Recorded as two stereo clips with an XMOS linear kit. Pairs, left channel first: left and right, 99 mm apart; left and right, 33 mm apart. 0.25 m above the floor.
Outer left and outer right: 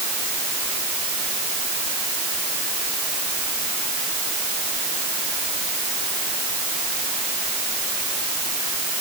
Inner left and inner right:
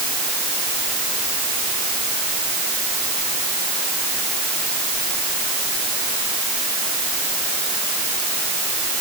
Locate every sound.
Only background noise.